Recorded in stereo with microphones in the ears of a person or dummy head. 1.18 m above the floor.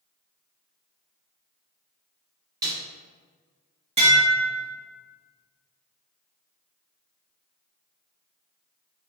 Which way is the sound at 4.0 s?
30° right (ahead or behind).